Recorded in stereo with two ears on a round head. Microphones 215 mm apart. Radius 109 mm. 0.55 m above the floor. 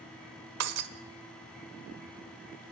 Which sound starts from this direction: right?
Breaking glass, at 0.6 s.